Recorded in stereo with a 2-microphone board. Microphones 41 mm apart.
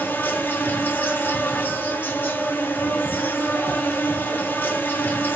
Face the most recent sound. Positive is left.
turn(degrees=70)  # may be behind; listen again after turning